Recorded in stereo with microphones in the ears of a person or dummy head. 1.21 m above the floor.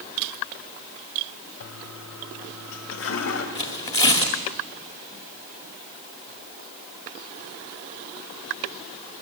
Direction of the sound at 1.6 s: 75° left (ahead or behind).